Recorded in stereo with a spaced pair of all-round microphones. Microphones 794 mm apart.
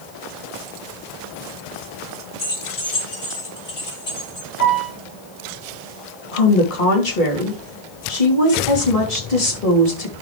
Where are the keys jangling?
80° left, 2.5 m; by 4.5 s 75° left (ahead or behind), 5 m.